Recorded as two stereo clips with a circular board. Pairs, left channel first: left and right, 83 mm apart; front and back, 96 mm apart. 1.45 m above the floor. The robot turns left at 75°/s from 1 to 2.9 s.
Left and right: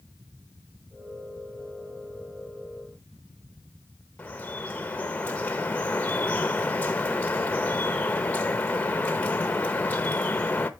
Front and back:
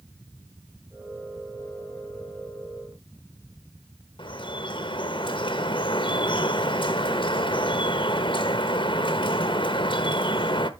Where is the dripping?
20° left, 1.1 m.